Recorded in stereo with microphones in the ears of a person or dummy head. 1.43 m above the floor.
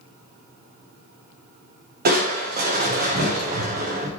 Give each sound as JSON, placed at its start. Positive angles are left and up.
{"t": 2.0, "sound": "crushing", "side_deg": -55, "distance_m": 1.1}